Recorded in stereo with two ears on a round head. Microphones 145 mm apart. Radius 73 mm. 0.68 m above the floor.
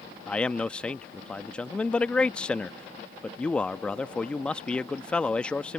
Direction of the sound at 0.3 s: 5° left (ahead or behind).